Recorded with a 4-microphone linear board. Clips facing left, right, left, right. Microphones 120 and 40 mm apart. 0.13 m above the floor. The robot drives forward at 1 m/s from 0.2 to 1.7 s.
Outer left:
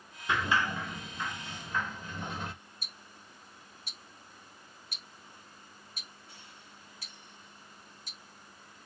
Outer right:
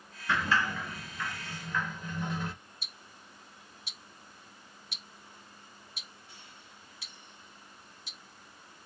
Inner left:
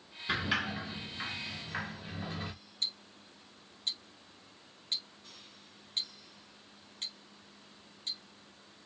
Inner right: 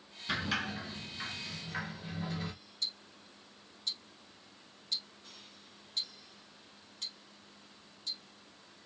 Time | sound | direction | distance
0.3 | a sliding door | 15° left (ahead or behind) | 1.6 m
2.8 | ticking | 45° left (ahead or behind) | 0.8 m